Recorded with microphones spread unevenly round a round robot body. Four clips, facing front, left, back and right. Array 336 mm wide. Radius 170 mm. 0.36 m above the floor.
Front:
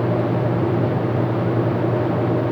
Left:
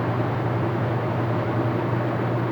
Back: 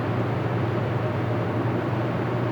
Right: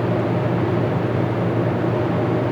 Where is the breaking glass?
I don't hear breaking glass.